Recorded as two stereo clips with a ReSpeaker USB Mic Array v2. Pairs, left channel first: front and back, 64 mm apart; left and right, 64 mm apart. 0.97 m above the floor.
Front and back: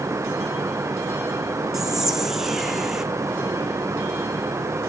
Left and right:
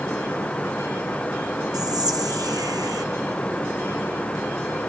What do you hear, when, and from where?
1.7 s whispering: 95° right, 1.4 m